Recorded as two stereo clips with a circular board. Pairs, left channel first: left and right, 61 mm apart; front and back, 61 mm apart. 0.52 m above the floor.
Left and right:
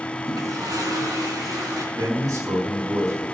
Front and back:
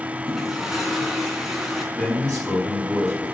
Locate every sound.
0.3 s a toilet flushing: 95° right, 3.5 m
1.9 s a man speaking: 75° right, 6 m